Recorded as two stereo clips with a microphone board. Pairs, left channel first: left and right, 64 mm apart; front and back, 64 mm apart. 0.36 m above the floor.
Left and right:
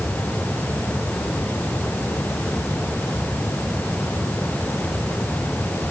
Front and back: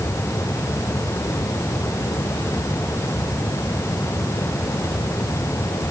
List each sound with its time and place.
Only background noise.